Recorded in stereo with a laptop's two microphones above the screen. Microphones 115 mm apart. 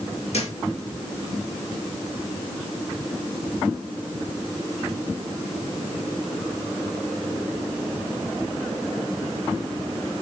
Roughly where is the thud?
Left.